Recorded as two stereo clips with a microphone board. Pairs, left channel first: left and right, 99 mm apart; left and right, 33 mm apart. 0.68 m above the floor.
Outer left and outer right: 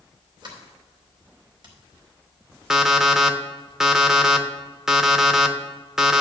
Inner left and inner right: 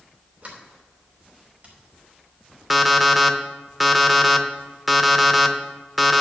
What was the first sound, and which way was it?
A sliding door, 45° right (ahead or behind).